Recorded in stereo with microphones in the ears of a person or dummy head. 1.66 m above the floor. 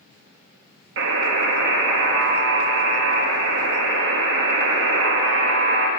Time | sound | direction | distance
1.0 | a buzzer | 70° right (ahead or behind) | 1.0 m